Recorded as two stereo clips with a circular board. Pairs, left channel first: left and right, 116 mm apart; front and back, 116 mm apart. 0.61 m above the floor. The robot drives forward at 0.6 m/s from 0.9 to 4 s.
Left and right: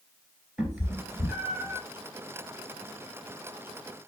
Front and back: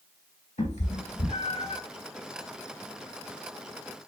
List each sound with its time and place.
0.6 s a cat meowing: 10° right, 2.5 m; by 1.8 s 15° right, 1.8 m